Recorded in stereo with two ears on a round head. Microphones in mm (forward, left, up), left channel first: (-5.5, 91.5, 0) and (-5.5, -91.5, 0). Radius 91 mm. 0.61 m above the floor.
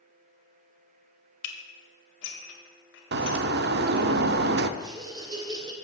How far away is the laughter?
About 2.5 m.